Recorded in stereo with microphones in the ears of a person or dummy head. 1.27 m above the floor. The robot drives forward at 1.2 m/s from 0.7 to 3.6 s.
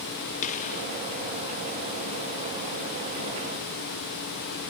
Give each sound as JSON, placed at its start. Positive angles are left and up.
{"t": 0.4, "sound": "a gunshot", "side_deg": 40, "distance_m": 1.0}